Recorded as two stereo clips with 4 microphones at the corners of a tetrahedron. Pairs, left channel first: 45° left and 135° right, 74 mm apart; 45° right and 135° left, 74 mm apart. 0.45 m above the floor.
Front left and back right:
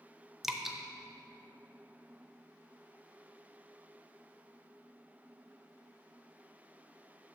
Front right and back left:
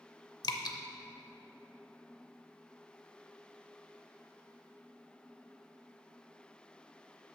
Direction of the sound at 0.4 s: 50° right.